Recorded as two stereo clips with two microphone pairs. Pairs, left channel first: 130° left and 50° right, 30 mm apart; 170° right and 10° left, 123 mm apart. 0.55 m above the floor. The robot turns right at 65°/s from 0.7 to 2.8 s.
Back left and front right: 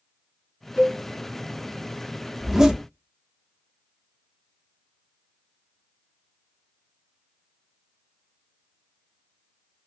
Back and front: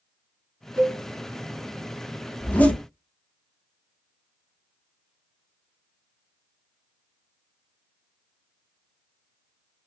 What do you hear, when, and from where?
0.8 s a cowbell: 40° right, 2 m; by 1.0 s 25° right, 2 m
2.4 s a zipper: 125° right, 0.5 m; by 2.8 s 100° right, 0.5 m